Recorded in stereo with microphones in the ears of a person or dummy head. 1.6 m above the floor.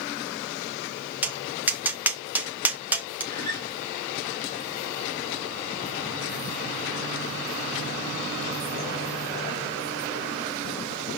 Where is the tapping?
5° right (ahead or behind), 1.0 m.